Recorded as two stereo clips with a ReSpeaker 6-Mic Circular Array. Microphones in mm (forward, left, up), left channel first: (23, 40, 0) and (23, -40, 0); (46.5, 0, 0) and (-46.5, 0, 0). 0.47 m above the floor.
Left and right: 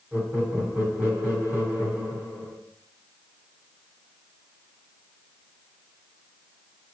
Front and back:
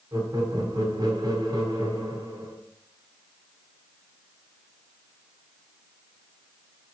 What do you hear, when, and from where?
0.1 s laughter: 160° right, 1.1 m